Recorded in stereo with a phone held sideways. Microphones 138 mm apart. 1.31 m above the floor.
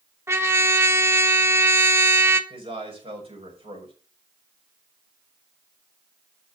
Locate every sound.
0.3 s a trumpet: 20° right (ahead or behind), 0.9 m
2.5 s a man speaking: 45° right (ahead or behind), 6 m